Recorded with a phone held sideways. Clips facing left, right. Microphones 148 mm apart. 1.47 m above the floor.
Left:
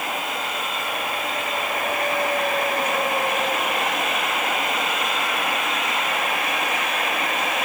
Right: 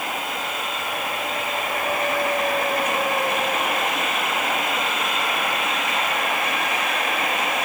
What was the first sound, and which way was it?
Only background noise.